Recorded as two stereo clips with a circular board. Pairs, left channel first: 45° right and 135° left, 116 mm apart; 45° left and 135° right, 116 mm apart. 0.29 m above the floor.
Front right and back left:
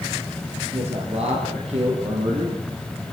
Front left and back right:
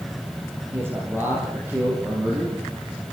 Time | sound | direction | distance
0.7 | a man speaking | 155° left | 7.5 m